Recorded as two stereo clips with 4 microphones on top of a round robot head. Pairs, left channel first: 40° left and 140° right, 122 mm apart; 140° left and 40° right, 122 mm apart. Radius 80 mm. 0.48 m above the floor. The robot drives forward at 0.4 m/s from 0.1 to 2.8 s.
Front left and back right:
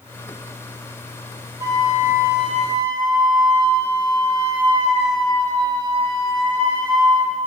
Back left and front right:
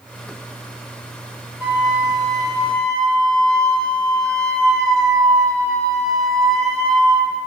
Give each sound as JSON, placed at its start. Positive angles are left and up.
{"t": 1.6, "sound": "a flute", "azimuth_deg": -110, "distance_m": 1.3}